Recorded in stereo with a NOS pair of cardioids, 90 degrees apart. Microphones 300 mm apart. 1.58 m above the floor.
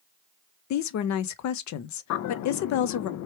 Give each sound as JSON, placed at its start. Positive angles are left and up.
{"t": 0.7, "sound": "a woman speaking", "azimuth_deg": 65, "distance_m": 0.7}
{"t": 2.1, "sound": "a bird", "azimuth_deg": 65, "distance_m": 0.5}